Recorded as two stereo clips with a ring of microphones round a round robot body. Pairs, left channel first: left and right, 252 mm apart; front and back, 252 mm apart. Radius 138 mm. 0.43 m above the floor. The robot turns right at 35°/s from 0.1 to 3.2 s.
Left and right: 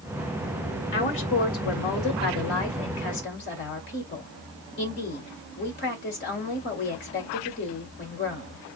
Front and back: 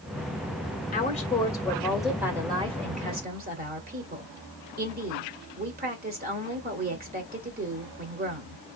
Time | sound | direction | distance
0.9 | a woman speaking | 55° left | 1.6 m